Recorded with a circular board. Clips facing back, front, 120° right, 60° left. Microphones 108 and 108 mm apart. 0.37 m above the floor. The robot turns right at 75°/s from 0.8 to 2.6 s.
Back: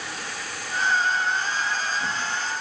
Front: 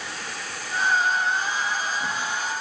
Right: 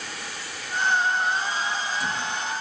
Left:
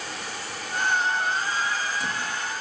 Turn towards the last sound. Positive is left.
No sound to turn to.